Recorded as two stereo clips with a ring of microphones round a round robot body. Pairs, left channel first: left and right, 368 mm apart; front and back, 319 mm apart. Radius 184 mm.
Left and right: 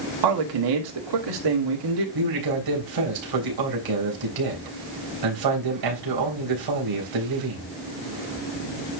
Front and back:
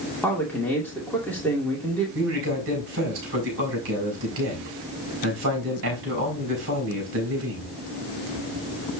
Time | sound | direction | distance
0.2 | a man speaking | 85° right | 2 m
2.1 | a man speaking | 125° right | 4 m